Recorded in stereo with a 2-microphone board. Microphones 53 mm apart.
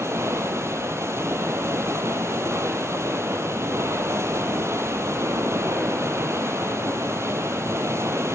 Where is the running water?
65° right (ahead or behind), 1.3 m.